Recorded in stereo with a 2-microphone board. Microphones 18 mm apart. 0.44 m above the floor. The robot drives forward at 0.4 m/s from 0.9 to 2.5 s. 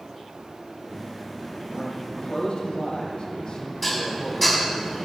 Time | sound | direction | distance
1.6 | a man speaking | 65° left (ahead or behind) | 3 m
3.8 | dishes clattering | 10° left (ahead or behind) | 2.0 m